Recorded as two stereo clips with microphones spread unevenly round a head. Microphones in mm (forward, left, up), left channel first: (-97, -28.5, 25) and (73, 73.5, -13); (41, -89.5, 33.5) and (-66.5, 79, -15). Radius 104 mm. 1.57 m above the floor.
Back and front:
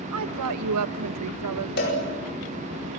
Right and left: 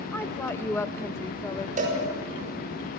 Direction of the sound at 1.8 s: 175° left.